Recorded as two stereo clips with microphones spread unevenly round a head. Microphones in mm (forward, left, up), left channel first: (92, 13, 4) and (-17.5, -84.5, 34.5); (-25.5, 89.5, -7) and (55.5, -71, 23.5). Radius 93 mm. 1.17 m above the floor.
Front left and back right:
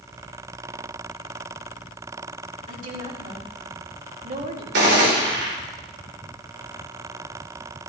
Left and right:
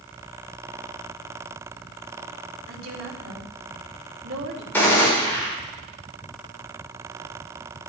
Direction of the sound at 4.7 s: 165° right.